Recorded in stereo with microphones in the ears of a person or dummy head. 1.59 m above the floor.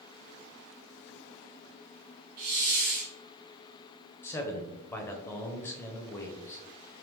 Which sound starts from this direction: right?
A hiss, at 2.4 s.